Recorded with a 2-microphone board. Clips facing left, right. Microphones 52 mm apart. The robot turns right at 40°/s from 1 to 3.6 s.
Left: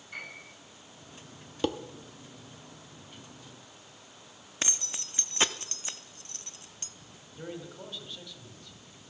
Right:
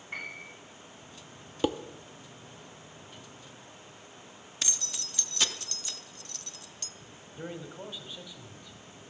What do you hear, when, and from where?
0.1 s a piano: 40° right (ahead or behind), 7 m
1.6 s dishes clattering: 5° right (ahead or behind), 0.7 m; by 1.8 s centre (ahead or behind), 0.7 m
4.6 s keys jangling: 30° left (ahead or behind), 0.7 m
7.3 s a man speaking: 15° right (ahead or behind), 2 m